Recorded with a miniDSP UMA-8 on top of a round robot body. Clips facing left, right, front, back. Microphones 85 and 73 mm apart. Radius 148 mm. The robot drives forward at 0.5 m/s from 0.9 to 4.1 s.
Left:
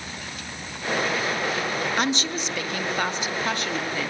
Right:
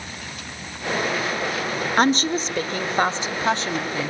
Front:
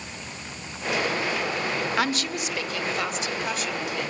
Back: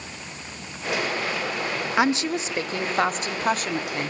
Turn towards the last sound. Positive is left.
turn(degrees=-155)